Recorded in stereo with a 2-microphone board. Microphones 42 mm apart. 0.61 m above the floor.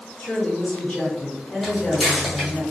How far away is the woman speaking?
About 1.4 m.